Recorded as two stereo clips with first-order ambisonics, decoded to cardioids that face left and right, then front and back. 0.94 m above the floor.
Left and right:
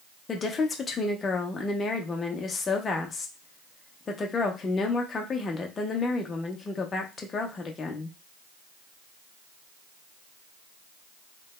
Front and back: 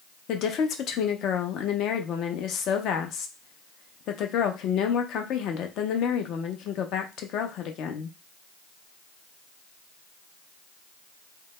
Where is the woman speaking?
25° left, 0.5 m.